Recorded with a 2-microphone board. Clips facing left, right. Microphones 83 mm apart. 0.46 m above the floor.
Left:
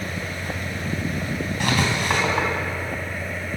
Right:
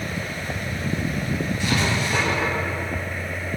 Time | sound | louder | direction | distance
1.6 | writing | left 3 dB | 60° left (ahead or behind) | 3 m